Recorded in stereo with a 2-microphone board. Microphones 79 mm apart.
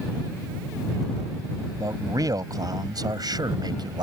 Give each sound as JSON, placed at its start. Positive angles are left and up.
{"t": 1.8, "sound": "a man speaking", "side_deg": -50}